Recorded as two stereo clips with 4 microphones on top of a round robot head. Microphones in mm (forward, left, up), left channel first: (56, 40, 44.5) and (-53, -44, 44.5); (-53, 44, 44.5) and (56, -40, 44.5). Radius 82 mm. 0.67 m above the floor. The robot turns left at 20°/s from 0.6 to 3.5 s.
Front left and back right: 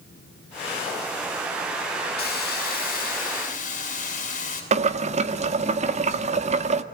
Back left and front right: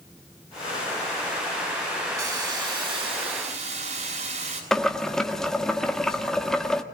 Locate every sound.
2.2 s a hiss: 30° left, 7 m; by 4.6 s 5° left, 7 m
4.7 s boiling: 130° right, 1.5 m